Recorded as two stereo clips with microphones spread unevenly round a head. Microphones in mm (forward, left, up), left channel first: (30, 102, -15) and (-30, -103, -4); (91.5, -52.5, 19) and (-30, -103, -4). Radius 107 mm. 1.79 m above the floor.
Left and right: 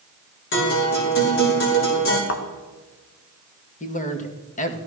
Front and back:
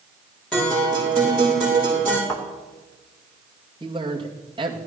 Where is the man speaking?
130° left, 2.0 m.